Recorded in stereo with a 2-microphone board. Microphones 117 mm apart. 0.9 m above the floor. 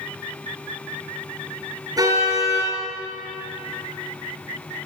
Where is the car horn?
30° right (ahead or behind), 8 m.